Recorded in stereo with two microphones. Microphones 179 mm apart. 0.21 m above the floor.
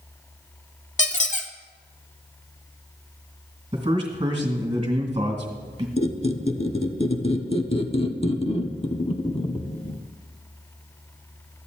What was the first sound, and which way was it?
A squeak, 45° left (ahead or behind).